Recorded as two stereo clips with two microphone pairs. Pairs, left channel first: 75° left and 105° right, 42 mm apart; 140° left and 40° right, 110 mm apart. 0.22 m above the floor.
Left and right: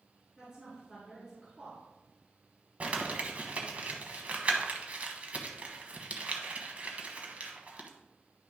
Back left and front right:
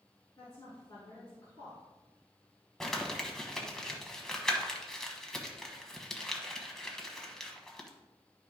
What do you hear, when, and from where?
0.4 s a woman speaking: 170° right, 3 m
2.8 s crumpling: 135° right, 1.2 m